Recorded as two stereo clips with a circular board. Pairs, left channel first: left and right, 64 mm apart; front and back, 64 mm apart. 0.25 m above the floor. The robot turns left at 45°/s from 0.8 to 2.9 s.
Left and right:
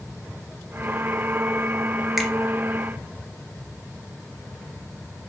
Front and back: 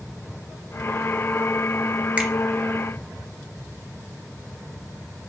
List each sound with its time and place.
2.2 s a finger snap: 170° right, 0.7 m; by 2.3 s 175° right, 0.7 m